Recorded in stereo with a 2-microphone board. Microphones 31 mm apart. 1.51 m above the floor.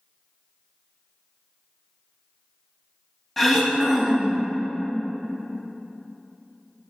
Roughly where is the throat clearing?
Centre.